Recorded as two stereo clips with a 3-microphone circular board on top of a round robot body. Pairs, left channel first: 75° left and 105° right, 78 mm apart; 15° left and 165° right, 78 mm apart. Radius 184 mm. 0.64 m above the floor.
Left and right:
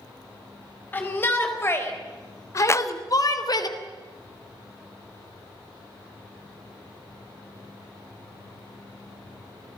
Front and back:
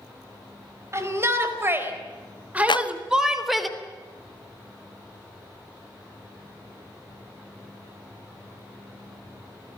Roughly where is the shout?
Behind left.